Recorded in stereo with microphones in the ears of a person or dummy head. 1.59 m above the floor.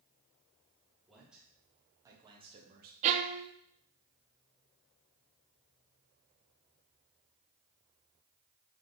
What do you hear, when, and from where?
1.1 s a man speaking: centre (ahead or behind), 2 m; by 2.9 s 50° right (ahead or behind), 1.0 m
3.0 s a violin: 35° right (ahead or behind), 0.5 m